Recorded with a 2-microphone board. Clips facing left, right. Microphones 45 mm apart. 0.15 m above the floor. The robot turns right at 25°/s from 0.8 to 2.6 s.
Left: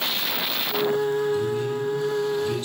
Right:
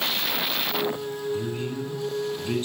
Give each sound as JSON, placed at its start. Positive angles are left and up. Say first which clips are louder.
{"t": 1.3, "sound": "a man speaking", "louder": "left 5 dB", "azimuth_deg": -100, "distance_m": 1.3}